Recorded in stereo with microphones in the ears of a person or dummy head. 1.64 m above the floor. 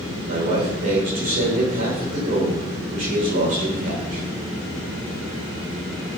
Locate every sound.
0.3 s a man speaking: 45° right (ahead or behind), 7.5 m